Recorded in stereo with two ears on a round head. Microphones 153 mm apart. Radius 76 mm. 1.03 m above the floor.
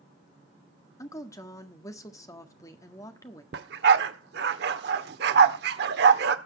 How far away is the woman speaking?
About 1.5 m.